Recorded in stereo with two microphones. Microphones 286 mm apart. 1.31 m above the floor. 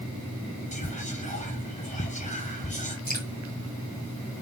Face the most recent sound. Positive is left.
turn(degrees=35)  # may be behind; listen again after turning